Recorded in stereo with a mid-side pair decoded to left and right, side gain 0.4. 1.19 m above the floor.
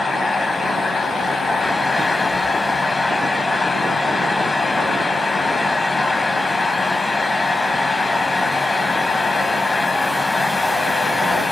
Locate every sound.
0.0 s a fan: 25° left, 0.9 m